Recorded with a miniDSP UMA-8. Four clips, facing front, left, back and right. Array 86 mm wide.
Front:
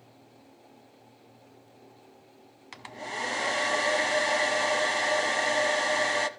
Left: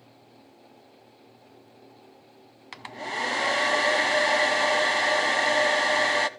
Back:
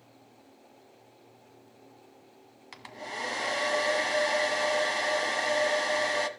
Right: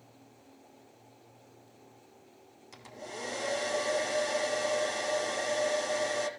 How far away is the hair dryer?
About 0.9 m.